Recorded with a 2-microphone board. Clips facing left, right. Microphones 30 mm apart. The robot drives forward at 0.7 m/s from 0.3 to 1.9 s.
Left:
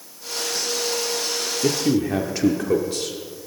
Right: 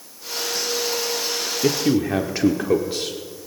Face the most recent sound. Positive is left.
turn(degrees=-20)  # may be behind; listen again after turning